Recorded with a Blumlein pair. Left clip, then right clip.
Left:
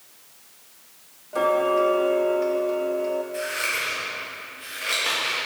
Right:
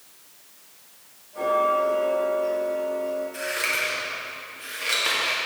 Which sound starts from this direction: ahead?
Scissors, at 3.3 s.